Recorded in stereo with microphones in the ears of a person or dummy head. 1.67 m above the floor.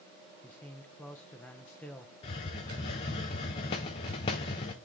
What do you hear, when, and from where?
0.4 s a man speaking: 10° left (ahead or behind), 0.6 m
2.2 s a hiss: 25° left (ahead or behind), 0.6 m